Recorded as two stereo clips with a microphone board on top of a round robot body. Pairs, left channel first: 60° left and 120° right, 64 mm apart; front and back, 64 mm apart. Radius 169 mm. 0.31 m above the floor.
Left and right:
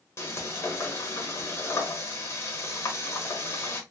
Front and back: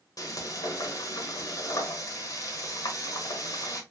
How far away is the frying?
About 1.2 m.